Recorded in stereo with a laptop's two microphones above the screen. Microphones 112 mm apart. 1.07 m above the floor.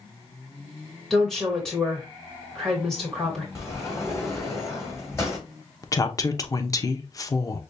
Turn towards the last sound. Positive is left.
turn(degrees=30)  # may be behind; listen again after turning